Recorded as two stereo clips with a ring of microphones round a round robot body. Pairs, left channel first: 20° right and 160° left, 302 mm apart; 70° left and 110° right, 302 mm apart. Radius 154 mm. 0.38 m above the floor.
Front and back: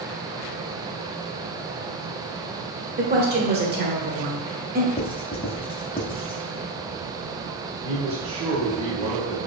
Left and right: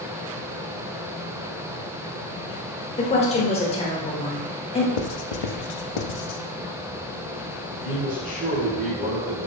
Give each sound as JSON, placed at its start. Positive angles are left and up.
{"t": 3.0, "sound": "a woman speaking", "azimuth_deg": 125, "distance_m": 1.2}
{"t": 5.0, "sound": "writing", "azimuth_deg": 50, "distance_m": 0.5}
{"t": 7.8, "sound": "a man speaking", "azimuth_deg": -155, "distance_m": 1.5}